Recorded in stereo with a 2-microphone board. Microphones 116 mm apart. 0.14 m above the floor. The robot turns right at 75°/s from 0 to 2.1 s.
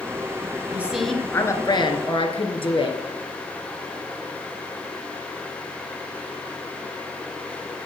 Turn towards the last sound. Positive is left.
turn(degrees=80)